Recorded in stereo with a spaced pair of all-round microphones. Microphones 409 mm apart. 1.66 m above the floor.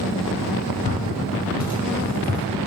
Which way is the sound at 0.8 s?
20° right (ahead or behind).